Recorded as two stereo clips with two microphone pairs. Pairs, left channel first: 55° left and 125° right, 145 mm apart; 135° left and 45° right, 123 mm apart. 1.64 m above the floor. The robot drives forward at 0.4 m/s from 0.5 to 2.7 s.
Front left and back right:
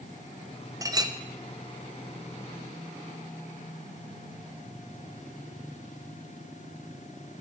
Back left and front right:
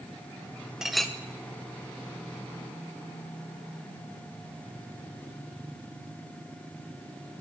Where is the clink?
135° right, 0.6 m; by 1.1 s 150° right, 0.7 m.